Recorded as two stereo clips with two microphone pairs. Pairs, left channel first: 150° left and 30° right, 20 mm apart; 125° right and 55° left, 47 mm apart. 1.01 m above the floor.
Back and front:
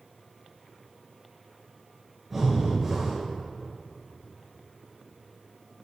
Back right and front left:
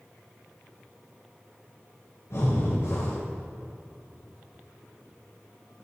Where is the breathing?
110° right, 4.5 m.